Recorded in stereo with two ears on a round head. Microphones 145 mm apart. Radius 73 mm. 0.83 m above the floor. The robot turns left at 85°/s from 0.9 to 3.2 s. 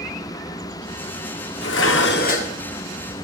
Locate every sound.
1.6 s dishes clattering: 110° left, 1.4 m; by 2.5 s 30° left, 1.4 m